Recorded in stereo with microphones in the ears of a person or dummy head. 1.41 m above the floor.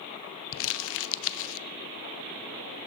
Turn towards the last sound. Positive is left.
turn(degrees=70)  # may be behind; listen again after turning